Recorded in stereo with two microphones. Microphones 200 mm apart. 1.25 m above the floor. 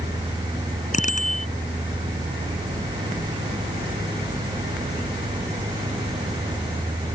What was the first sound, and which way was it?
A bicycle bell, 40° left (ahead or behind).